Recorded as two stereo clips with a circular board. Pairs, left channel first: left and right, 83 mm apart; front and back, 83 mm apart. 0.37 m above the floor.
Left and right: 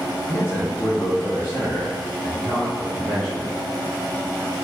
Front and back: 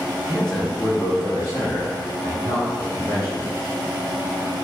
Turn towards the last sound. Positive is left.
turn(degrees=25)